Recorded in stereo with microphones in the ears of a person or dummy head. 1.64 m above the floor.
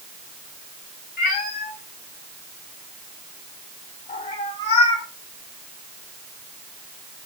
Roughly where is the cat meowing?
Left.